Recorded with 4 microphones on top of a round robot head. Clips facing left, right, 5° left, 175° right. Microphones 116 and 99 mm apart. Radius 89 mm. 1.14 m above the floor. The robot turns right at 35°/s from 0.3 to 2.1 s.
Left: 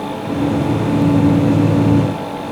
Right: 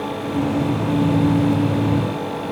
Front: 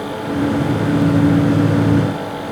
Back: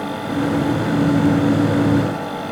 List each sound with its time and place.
Only background noise.